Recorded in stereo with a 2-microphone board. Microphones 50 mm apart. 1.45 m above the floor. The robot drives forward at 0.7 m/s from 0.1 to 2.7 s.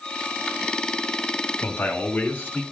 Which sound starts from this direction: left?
A man speaking, at 1.6 s.